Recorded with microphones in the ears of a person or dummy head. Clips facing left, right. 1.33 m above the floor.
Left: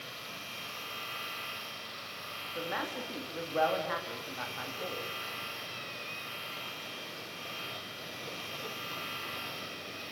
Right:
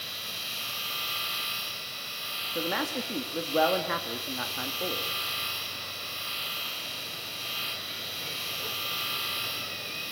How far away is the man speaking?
About 2 m.